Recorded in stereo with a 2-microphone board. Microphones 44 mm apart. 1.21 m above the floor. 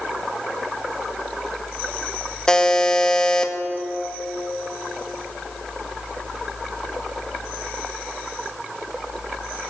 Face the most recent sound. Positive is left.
turn(degrees=15)  # may be behind; listen again after turning